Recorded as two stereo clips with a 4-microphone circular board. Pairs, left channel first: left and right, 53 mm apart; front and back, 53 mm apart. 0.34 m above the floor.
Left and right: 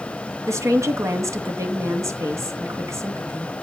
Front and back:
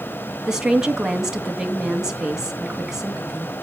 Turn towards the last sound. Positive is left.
turn(degrees=-105)